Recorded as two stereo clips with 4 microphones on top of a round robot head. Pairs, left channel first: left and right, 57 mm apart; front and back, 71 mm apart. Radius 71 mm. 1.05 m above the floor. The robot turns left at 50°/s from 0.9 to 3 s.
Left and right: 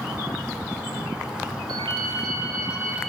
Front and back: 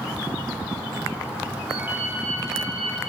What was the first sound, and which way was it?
A ringtone, 95° right.